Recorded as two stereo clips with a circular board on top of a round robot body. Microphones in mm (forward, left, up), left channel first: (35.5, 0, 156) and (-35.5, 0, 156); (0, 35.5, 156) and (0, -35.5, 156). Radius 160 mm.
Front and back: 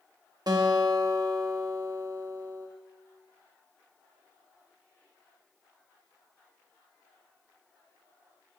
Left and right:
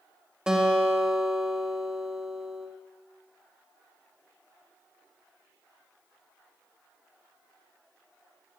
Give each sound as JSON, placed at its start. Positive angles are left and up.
{"t": 0.5, "sound": "a guitar", "azimuth_deg": -170, "distance_m": 1.3}